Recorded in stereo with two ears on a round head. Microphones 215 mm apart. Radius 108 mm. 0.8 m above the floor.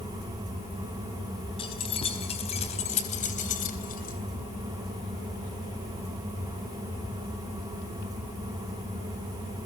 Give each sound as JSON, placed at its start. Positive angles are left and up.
{"t": 1.6, "sound": "keys jangling", "side_deg": 25, "distance_m": 4.5}